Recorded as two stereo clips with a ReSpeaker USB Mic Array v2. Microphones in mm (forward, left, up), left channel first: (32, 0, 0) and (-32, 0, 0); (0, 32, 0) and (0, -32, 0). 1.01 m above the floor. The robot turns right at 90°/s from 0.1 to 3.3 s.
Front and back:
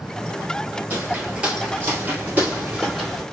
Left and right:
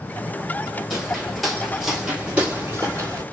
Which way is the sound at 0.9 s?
175° right.